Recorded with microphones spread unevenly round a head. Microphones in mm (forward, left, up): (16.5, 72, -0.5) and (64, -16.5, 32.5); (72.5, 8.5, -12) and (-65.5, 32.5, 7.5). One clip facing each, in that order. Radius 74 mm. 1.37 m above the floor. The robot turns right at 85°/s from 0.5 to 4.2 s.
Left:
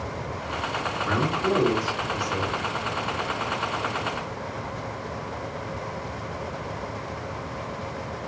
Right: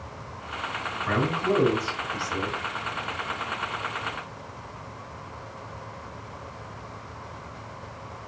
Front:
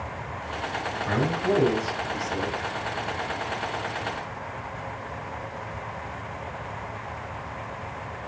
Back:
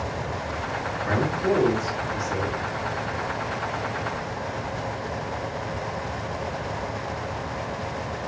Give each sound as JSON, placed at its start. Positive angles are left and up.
{"t": 1.1, "sound": "a man speaking", "azimuth_deg": 170, "distance_m": 1.8}